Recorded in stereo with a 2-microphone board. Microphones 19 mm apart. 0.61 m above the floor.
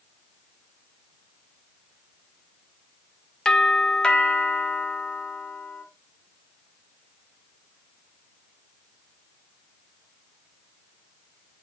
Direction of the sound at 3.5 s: 45° left (ahead or behind).